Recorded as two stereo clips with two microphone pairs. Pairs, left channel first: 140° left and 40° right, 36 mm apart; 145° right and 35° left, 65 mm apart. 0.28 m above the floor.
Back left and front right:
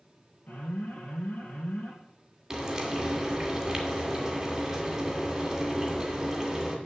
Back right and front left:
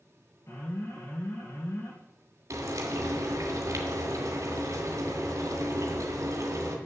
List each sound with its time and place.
0.5 s an alarm: 175° left, 5 m
2.5 s frying: 35° left, 2.5 m